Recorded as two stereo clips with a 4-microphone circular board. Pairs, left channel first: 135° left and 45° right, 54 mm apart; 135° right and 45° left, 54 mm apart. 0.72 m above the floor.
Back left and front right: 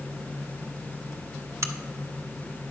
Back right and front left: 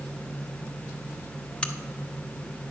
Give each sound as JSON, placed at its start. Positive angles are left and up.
{"t": 1.6, "sound": "a crack", "azimuth_deg": -65, "distance_m": 0.6}